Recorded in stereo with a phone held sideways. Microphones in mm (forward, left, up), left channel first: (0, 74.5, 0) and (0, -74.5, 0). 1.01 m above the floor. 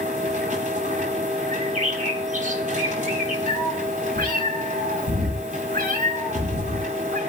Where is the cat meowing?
85° right, 5.5 m.